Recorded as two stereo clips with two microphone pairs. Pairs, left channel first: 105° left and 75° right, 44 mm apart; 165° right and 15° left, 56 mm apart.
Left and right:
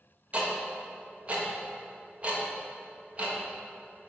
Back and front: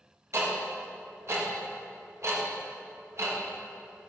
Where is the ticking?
15° right, 1.4 m.